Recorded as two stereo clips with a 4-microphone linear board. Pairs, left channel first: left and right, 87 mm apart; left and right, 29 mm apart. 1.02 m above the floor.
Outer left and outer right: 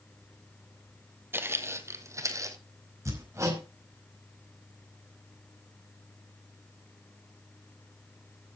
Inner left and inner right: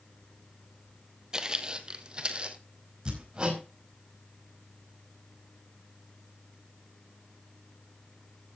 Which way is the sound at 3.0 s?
35° right (ahead or behind).